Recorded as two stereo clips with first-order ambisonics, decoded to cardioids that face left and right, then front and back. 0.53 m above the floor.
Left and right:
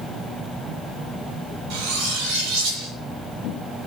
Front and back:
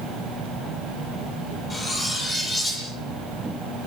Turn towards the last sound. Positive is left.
turn(degrees=-75)